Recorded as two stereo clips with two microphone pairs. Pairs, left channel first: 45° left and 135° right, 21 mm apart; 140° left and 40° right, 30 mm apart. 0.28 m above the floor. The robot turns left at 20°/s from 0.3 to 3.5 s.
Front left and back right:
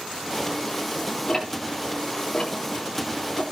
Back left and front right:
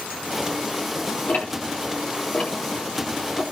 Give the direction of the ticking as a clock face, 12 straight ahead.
8 o'clock.